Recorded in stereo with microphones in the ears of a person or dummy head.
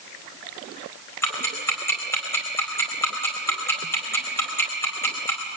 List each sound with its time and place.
1.2 s ticking: 10° left (ahead or behind), 4 m